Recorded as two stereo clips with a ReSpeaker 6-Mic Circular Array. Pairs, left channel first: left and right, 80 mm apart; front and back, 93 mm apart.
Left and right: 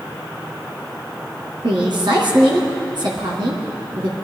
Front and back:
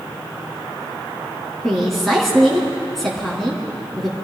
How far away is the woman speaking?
About 3 m.